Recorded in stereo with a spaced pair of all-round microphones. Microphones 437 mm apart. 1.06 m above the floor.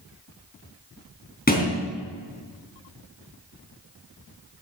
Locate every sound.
1.5 s a thud: 20° left (ahead or behind), 3 m